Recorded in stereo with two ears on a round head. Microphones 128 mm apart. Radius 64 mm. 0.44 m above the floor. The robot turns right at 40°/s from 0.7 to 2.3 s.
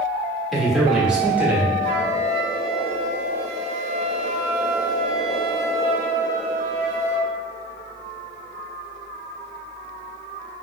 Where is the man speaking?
Centre (ahead or behind), 0.9 m; by 1.7 s 15° right (ahead or behind), 0.9 m.